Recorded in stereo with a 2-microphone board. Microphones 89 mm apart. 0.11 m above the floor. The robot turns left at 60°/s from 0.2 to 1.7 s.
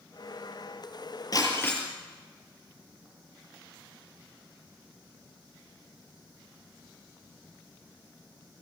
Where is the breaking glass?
45° left (ahead or behind), 7 m; by 1.8 s 20° left (ahead or behind), 7 m.